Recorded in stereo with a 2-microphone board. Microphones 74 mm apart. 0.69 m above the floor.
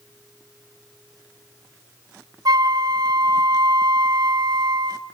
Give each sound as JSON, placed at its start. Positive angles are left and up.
{"t": 2.5, "sound": "a flute", "side_deg": -60, "distance_m": 0.6}